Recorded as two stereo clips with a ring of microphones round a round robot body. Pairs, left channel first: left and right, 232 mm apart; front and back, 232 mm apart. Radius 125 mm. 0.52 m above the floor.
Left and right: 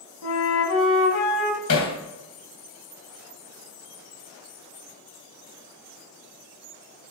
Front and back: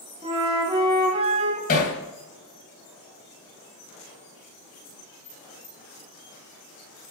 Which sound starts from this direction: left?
A flute, at 0.2 s.